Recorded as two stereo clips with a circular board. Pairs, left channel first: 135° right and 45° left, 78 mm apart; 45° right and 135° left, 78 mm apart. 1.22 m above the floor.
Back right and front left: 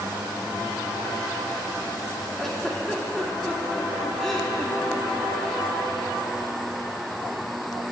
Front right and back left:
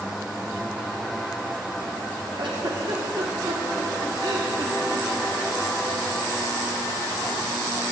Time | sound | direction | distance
2.4 | a giggle | 140° left | 2.5 m